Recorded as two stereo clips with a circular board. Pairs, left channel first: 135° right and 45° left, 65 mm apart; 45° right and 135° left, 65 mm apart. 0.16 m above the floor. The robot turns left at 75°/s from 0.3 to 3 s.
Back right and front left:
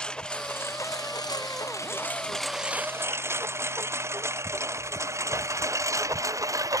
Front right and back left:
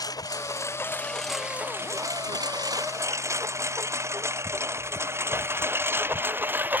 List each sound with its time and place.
0.0 s a lawn mower: 60° right; by 6.8 s 75° left